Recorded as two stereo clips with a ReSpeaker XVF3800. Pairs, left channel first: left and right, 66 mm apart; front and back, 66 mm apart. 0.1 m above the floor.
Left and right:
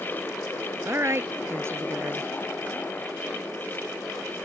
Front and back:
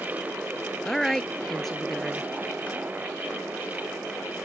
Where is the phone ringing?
No phone ringing in this recording.